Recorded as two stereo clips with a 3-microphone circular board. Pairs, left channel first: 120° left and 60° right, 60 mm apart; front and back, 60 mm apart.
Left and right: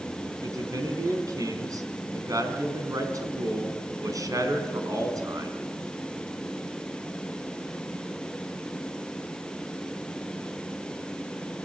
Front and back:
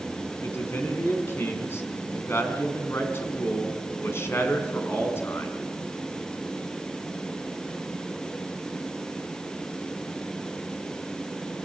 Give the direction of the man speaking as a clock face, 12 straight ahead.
1 o'clock.